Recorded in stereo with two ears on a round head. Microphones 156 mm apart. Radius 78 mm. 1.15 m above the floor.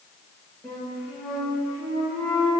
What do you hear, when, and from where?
0.6 s a flute: centre (ahead or behind), 2.0 m